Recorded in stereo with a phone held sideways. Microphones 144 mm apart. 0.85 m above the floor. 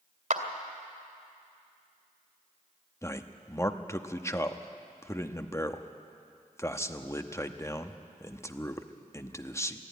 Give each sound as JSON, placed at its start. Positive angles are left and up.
{"t": 0.3, "sound": "a clap", "side_deg": -70, "distance_m": 2.0}
{"t": 3.0, "sound": "a man speaking", "side_deg": 20, "distance_m": 0.9}